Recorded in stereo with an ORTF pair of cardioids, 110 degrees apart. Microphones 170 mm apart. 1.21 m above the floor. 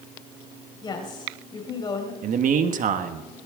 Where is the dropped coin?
No dropped coin in this recording.